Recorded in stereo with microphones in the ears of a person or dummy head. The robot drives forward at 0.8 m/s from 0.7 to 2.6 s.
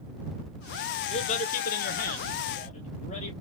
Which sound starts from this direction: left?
A man speaking, at 1.1 s.